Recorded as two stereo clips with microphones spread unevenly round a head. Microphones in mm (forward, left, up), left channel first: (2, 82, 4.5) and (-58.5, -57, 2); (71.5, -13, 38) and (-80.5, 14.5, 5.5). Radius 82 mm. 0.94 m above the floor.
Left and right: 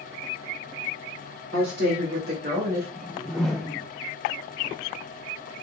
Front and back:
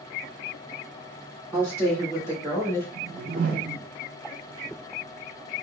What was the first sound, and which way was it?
A woman speaking, 90° right.